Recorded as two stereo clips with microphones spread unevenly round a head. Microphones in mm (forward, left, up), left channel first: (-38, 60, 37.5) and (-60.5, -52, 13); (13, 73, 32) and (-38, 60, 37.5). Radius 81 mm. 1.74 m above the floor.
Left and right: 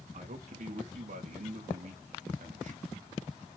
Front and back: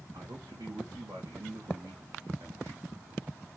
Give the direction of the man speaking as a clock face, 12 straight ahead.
4 o'clock.